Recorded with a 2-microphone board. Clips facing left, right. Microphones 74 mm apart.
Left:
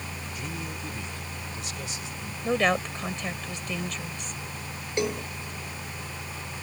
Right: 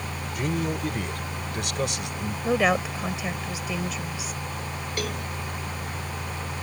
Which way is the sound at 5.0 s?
25° left (ahead or behind).